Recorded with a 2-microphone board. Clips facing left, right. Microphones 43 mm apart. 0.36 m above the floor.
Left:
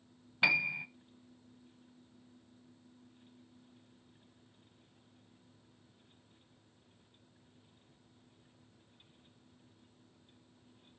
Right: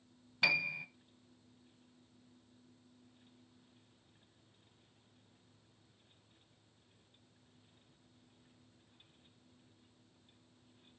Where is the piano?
15° left (ahead or behind), 0.8 m.